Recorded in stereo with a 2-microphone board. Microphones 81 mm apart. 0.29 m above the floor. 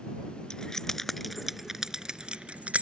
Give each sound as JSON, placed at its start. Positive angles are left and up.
{"t": 0.5, "sound": "keys jangling", "side_deg": 10}